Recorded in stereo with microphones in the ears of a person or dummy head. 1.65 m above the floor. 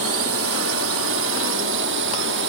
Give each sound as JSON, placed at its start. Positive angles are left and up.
{"t": 0.0, "sound": "a drone", "side_deg": -70}